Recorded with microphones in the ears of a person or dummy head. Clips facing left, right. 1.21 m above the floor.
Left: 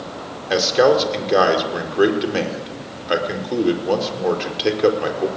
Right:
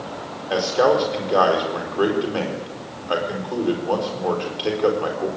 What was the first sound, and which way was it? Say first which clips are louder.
A man speaking: left 3 dB; 25° left (ahead or behind).